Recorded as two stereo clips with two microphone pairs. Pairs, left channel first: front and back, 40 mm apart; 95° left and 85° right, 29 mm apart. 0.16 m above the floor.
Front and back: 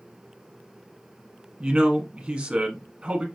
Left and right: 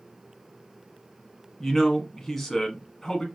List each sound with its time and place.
1.6 s a man speaking: 170° left, 1.2 m